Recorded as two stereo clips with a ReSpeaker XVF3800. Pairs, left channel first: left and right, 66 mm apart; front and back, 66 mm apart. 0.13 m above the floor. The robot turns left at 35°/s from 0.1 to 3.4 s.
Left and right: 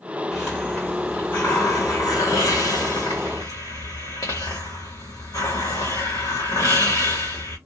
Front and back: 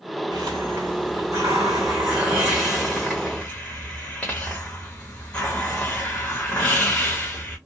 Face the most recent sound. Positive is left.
turn(degrees=75)